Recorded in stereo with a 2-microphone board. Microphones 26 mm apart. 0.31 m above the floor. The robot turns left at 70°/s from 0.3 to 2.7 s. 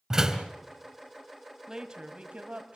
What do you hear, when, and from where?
0.1 s a door slam: 25° right (ahead or behind), 3 m; by 0.5 s 35° right (ahead or behind), 3 m
1.7 s a woman speaking: 25° right, 2 m; by 2.8 s 95° right, 2 m